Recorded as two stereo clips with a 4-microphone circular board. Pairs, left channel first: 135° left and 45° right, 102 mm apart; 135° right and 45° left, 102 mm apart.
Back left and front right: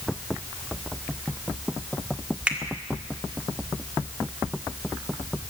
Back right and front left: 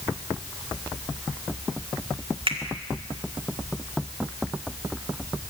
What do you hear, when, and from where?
2.5 s a finger snap: 35° left, 1.7 m